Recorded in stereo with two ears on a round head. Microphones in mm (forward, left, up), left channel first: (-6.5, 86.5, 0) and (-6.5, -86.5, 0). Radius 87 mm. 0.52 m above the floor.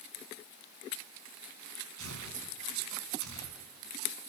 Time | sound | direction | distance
2.0 | tearing paper | 80° right | 6 m